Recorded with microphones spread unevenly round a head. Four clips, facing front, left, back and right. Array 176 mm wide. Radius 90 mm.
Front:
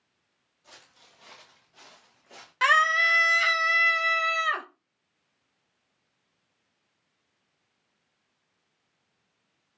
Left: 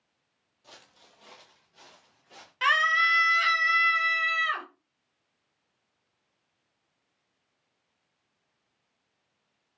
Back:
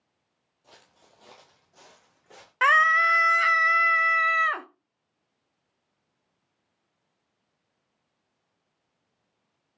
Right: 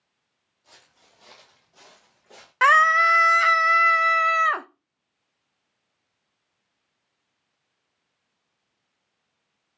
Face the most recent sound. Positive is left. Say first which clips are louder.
# right 8 dB, back 2 dB
turn(degrees=-105)